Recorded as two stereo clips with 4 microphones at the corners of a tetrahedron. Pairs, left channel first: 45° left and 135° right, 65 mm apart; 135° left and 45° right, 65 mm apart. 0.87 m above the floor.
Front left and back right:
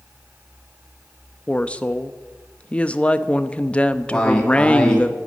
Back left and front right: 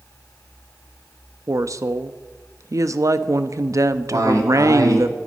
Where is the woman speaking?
25° right, 0.8 m.